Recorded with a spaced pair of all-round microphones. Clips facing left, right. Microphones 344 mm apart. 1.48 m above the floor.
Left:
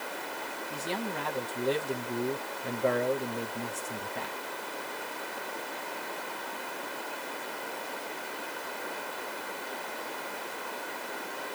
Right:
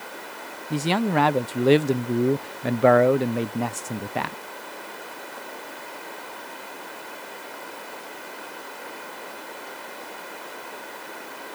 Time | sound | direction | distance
0.7 | a man speaking | 70° right (ahead or behind) | ?